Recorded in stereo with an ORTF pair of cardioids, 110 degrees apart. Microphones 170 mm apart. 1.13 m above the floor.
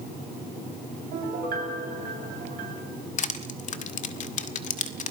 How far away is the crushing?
About 1.9 m.